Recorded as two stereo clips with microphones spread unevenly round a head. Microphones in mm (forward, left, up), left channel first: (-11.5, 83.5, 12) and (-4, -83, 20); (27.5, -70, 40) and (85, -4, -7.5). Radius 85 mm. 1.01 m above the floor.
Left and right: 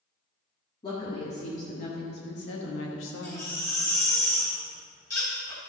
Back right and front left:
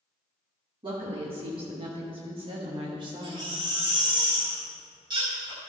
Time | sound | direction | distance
0.8 | a woman speaking | 30° left | 1.7 m
3.2 | a baby crying | 15° left | 3.5 m